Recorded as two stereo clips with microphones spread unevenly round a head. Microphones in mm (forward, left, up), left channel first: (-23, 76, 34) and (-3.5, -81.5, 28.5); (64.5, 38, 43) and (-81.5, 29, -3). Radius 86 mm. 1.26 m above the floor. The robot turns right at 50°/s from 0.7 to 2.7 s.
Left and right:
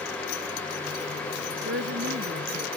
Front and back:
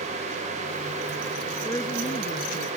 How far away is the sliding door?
No sliding door in this recording.